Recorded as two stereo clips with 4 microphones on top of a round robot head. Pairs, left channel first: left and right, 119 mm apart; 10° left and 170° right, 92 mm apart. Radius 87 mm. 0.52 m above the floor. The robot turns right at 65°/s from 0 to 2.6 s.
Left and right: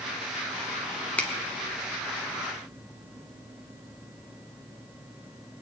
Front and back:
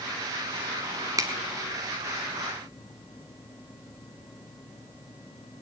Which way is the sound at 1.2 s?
165° left.